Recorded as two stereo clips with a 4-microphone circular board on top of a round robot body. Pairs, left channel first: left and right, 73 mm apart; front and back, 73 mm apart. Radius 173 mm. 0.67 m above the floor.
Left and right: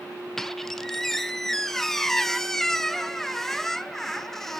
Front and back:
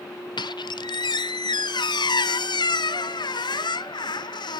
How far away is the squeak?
About 0.7 m.